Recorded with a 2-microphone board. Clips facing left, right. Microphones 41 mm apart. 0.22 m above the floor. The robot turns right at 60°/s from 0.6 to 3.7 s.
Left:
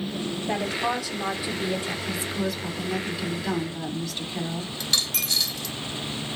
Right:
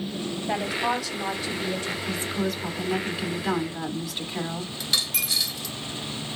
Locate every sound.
0.5 s a woman speaking: 10° right (ahead or behind), 1.0 m; by 2.0 s 25° left (ahead or behind), 1.0 m
2.1 s a woman speaking: 120° right, 1.3 m; by 4.7 s 25° right, 1.3 m
4.8 s a dropped coin: 5° right (ahead or behind), 0.6 m